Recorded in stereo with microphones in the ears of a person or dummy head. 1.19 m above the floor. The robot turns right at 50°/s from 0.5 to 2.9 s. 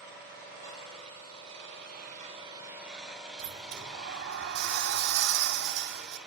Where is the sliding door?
60° right (ahead or behind), 2.5 m.